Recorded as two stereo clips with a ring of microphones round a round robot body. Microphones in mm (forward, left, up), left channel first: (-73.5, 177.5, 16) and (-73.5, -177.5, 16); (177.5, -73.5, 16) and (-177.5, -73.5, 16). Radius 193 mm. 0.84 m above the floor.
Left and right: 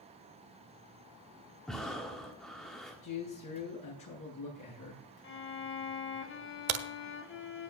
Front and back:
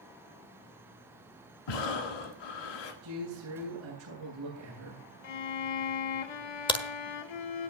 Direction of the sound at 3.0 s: 125° left.